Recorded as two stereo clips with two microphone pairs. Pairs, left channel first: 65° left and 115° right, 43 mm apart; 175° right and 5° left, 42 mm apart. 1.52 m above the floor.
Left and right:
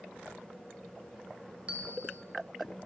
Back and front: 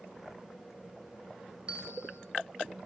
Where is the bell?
60° right, 2 m.